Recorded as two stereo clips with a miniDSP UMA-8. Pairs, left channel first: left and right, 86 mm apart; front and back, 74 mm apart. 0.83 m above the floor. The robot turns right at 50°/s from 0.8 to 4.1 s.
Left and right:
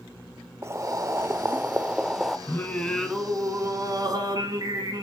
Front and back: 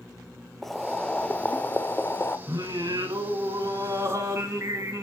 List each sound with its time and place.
0.6 s boiling: 80° right, 0.5 m; by 2.4 s 5° right, 0.5 m
2.5 s singing: 150° left, 1.5 m; by 5.0 s 130° right, 1.5 m